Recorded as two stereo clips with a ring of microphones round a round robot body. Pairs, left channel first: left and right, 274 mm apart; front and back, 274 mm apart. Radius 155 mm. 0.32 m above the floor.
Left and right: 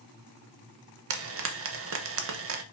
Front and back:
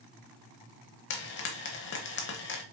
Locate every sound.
1.1 s frying: 50° right, 0.7 m